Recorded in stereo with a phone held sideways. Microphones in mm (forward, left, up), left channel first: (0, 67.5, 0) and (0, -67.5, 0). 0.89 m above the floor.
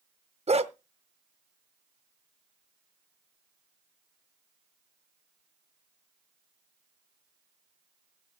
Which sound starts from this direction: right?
A dog barking, at 0.5 s.